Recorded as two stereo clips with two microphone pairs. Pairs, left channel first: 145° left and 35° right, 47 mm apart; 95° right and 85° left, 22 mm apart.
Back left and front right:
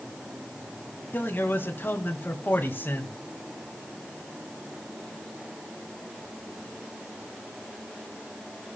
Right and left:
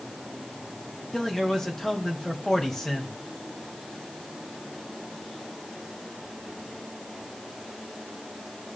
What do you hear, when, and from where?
1.1 s a man speaking: 175° right, 2.5 m